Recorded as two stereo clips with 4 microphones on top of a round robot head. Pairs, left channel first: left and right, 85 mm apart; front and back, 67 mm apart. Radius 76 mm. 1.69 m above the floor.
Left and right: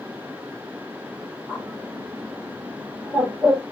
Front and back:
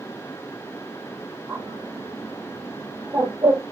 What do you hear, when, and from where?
1.5 s a bird: 155° right, 1.2 m